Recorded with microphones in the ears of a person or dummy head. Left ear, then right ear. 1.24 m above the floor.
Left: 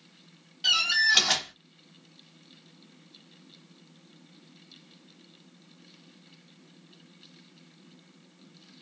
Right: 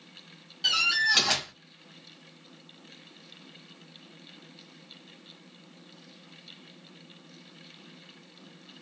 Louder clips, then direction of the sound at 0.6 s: Left 1 dB; 5° right (ahead or behind).